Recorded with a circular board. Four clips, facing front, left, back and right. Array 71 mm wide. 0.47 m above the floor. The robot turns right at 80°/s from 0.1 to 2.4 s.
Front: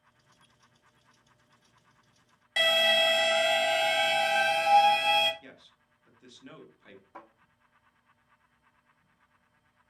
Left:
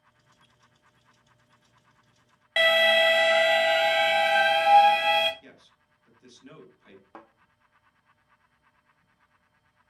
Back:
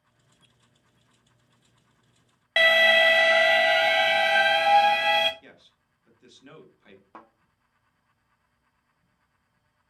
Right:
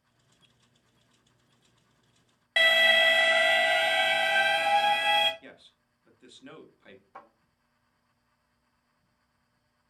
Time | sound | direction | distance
2.6 | an alarm | 175° left | 0.5 m
5.4 | a man speaking | 90° right | 0.7 m
7.1 | a thud | 130° left | 1.1 m